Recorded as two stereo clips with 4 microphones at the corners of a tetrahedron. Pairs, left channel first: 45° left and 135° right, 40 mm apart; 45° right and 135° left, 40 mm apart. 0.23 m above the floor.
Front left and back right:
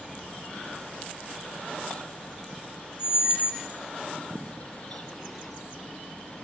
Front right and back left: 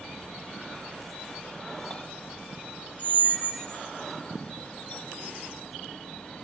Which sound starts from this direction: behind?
A squeak, at 3.0 s.